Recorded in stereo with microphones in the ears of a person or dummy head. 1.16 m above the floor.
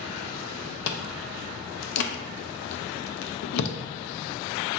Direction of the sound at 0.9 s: 65° left (ahead or behind).